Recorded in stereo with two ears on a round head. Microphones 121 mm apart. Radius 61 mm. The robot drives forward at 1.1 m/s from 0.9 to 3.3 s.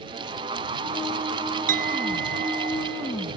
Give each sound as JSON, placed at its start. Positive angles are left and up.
{"t": 1.7, "sound": "a clink", "side_deg": -70}